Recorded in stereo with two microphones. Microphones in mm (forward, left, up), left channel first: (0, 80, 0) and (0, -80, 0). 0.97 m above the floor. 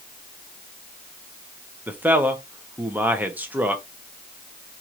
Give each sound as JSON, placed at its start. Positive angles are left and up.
{"t": 1.9, "sound": "a man speaking", "side_deg": -10, "distance_m": 0.8}